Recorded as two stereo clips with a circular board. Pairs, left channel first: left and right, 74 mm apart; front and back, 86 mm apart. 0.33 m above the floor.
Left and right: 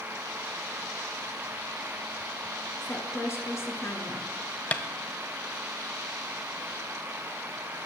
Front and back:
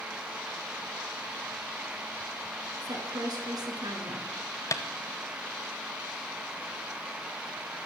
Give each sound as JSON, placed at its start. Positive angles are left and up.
{"t": 2.8, "sound": "a woman speaking", "azimuth_deg": 140, "distance_m": 4.0}
{"t": 4.7, "sound": "tapping", "azimuth_deg": 25, "distance_m": 1.0}